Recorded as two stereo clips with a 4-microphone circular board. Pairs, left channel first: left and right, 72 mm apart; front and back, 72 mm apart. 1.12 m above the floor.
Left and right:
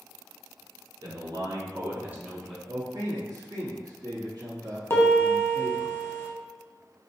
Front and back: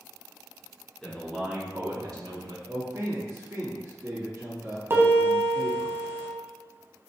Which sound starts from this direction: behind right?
A man speaking, at 2.7 s.